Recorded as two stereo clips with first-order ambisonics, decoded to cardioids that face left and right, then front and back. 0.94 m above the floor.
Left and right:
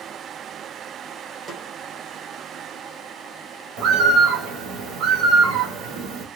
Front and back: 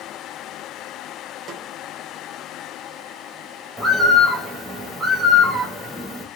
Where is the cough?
I don't hear a cough.